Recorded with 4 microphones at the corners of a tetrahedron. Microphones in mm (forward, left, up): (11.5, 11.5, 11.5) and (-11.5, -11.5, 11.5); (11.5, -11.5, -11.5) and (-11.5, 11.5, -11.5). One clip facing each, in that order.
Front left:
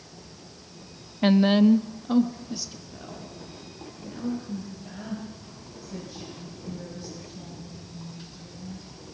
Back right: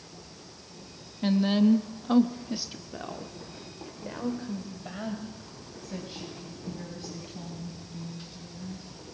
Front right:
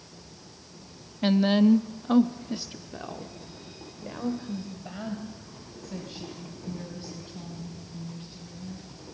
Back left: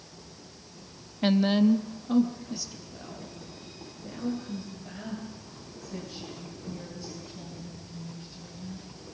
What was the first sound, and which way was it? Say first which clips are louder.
A woman speaking: front left 5 dB, front right 2 dB; 50° left.